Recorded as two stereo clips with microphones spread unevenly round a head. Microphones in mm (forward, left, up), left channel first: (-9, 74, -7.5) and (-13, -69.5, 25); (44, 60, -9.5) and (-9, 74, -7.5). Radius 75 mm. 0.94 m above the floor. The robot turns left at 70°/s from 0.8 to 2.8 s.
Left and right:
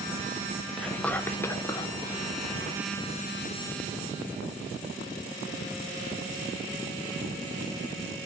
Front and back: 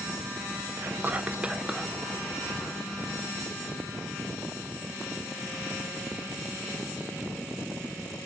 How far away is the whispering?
About 0.5 m.